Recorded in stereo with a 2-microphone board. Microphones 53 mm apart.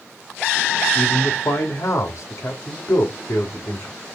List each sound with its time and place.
0.9 s a man speaking: 70° left (ahead or behind), 4.5 m